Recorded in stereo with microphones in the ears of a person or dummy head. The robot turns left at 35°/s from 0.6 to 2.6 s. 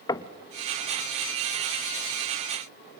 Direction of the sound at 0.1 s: 15° left (ahead or behind).